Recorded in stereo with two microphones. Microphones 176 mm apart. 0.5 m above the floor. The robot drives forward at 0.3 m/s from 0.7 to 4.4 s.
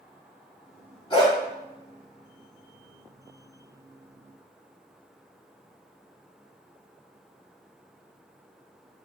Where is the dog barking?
30° left (ahead or behind), 1.6 m.